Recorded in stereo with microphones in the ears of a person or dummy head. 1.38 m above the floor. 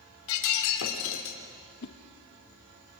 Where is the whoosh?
50° left (ahead or behind), 1.1 m.